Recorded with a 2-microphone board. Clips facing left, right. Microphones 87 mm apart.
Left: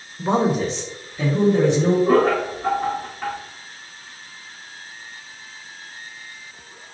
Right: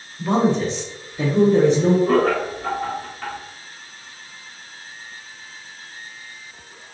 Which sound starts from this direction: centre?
Laughter, at 2.1 s.